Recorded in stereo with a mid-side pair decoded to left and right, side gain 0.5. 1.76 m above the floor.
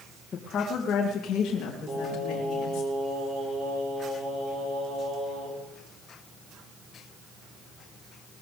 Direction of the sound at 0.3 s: 50° left.